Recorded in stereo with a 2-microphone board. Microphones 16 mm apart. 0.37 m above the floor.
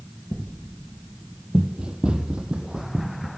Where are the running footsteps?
60° right (ahead or behind), 0.7 m.